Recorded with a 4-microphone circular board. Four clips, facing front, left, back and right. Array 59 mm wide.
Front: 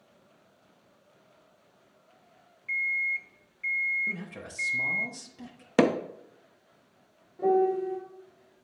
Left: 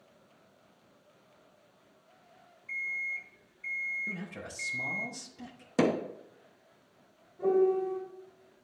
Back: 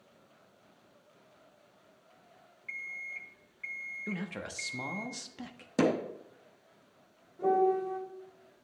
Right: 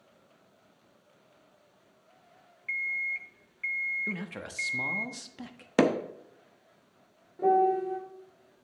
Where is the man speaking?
125° right, 1.0 m.